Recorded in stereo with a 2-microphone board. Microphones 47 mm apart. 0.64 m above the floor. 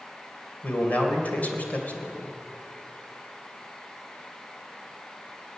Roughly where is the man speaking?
Left.